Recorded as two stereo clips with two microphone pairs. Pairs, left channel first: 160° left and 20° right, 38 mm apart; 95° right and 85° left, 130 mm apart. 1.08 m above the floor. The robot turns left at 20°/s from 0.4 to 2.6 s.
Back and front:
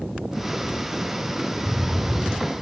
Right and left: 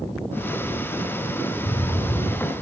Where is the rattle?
125° right, 5 m; by 2.6 s 145° right, 5 m.